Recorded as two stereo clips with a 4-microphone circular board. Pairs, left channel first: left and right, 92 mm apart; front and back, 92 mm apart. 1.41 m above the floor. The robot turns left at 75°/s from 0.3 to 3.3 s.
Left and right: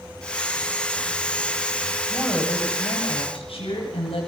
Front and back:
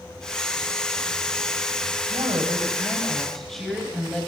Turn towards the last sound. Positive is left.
turn(degrees=90)